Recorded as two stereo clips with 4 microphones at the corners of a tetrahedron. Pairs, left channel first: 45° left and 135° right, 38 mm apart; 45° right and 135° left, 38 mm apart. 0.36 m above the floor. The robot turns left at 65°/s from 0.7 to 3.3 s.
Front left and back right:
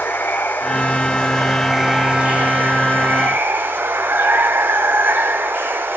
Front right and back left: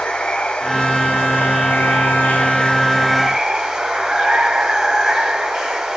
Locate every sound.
0.0 s running water: 20° left, 0.8 m; by 6.0 s 150° right, 0.8 m